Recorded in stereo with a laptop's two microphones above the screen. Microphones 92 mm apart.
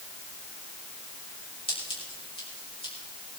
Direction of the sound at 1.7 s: 85° left.